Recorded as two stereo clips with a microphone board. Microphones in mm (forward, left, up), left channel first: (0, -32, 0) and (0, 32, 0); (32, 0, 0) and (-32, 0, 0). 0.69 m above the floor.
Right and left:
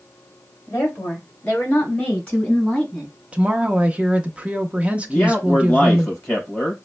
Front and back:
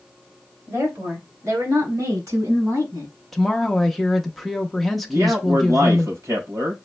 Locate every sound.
0.7 s a woman speaking: 140° right, 2.5 m; by 3.1 s 160° right, 4 m
3.3 s a woman speaking: 80° left, 0.6 m
5.1 s a man speaking: 155° right, 3.5 m